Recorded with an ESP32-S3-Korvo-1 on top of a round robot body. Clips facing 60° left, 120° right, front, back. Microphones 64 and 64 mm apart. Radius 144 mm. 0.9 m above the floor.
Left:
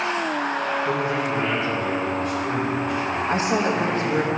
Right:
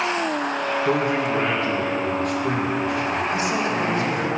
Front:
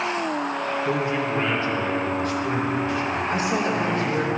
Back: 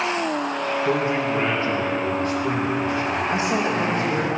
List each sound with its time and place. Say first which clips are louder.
0.8 s a man speaking: right 2 dB, back 3 dB; 125° right, 1.5 m
3.3 s a woman speaking: left 1 dB, even; 115° left, 1.2 m